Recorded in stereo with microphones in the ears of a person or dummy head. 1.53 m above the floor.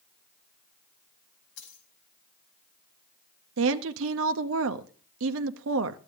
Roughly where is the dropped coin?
Left.